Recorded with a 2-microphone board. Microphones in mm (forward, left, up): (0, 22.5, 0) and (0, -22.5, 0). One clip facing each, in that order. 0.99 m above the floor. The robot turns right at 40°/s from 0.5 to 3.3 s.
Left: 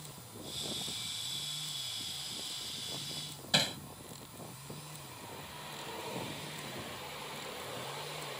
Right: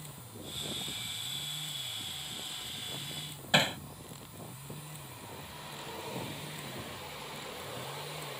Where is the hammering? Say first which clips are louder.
Right 5 dB; 30° right (ahead or behind).